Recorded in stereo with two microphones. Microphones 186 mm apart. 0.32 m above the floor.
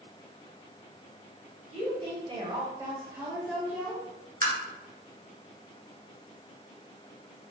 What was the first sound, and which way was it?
A woman speaking, 35° right (ahead or behind).